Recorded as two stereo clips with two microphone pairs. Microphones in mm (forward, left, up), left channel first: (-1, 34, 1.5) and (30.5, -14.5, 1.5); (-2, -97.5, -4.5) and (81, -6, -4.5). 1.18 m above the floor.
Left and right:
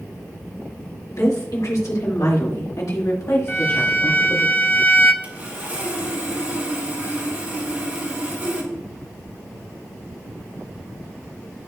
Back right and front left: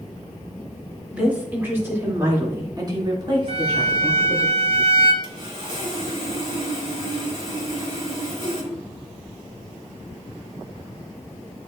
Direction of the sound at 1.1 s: 125° left.